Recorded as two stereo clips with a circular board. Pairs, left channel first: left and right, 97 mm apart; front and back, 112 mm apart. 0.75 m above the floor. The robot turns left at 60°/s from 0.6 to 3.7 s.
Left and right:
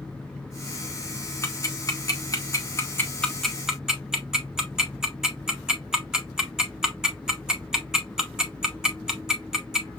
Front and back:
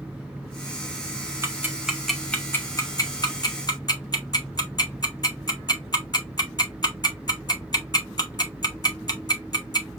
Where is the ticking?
125° left, 0.9 m; by 10.0 s 10° right, 0.9 m.